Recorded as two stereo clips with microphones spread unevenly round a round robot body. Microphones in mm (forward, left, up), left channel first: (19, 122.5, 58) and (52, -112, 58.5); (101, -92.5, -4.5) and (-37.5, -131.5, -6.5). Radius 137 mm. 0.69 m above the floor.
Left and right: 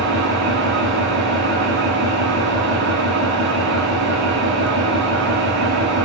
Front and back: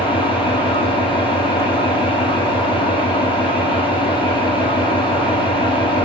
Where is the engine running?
40° right, 4.5 m.